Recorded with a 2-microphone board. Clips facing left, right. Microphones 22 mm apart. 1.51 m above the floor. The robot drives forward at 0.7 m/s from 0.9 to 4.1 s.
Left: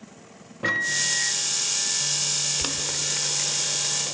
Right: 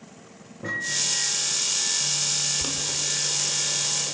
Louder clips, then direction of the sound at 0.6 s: Left 3 dB; 80° left.